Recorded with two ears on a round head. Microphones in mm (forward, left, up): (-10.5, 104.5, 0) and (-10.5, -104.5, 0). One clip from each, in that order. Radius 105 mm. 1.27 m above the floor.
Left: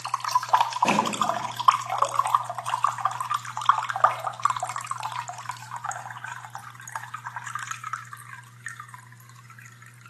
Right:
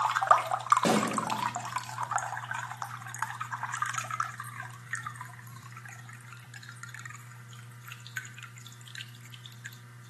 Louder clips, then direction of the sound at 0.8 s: Left 3 dB; 50° right (ahead or behind).